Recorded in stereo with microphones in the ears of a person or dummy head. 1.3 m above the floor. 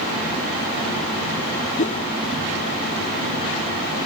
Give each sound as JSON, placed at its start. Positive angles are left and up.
{"t": 1.8, "sound": "a whoosh", "side_deg": 40}